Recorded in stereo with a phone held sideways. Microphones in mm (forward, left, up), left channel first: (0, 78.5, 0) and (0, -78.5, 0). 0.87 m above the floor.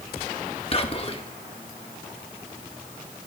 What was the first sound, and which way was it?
Whispering, 40° left (ahead or behind).